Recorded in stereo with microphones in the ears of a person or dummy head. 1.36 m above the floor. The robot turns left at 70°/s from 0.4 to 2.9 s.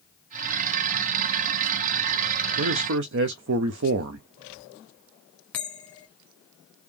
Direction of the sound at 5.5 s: 5° left (ahead or behind).